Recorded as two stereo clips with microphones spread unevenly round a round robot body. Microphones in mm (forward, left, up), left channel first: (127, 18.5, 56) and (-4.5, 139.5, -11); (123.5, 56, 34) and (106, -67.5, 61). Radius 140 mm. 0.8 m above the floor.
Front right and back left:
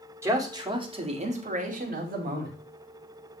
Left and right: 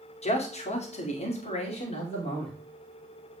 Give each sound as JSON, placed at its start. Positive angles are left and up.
{"t": 0.2, "sound": "a man speaking", "azimuth_deg": 70, "distance_m": 2.5}